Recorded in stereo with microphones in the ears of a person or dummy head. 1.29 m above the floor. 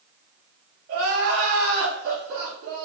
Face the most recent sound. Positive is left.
turn(degrees=-50)  # may be behind; listen again after turning